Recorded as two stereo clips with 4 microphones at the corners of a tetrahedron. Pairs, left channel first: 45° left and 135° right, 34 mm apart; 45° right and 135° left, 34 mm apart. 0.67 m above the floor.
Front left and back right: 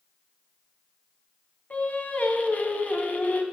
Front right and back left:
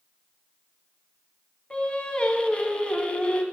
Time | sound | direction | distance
1.7 | singing | 10° left | 1.2 m